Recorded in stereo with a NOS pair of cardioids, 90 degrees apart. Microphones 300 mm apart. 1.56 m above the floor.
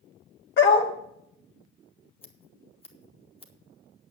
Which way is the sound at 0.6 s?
40° left.